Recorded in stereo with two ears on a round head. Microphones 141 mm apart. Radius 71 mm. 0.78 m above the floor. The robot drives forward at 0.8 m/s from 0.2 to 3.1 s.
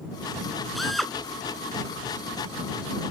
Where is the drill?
Centre (ahead or behind).